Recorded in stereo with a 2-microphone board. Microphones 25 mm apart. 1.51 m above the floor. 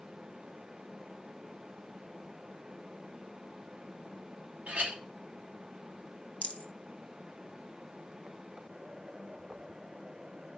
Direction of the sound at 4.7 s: 75° right (ahead or behind).